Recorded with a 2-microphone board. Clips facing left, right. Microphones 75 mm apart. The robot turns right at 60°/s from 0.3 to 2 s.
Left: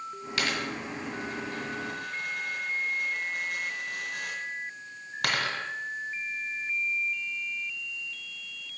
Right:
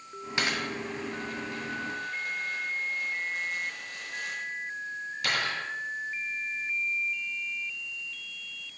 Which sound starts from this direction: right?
A dropped coin, at 0.4 s.